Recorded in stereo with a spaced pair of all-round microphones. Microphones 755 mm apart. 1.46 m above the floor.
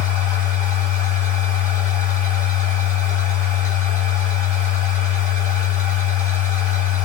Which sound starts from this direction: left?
A machine running, at 0.0 s.